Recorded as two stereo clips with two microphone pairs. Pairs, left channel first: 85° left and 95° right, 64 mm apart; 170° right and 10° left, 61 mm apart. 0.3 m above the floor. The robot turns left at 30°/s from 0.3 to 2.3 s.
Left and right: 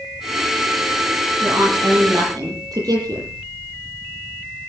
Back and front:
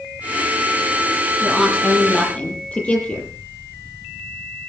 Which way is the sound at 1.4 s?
75° right.